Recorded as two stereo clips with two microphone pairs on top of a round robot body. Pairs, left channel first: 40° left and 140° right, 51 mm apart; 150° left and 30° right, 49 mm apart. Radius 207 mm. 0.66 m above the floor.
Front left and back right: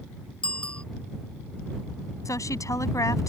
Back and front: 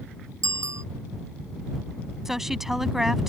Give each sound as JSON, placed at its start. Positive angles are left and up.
{"t": 0.4, "sound": "a bicycle bell", "azimuth_deg": -35}
{"t": 2.2, "sound": "a woman speaking", "azimuth_deg": 55}